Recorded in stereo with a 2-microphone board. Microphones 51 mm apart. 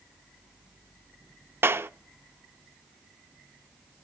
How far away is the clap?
About 0.6 m.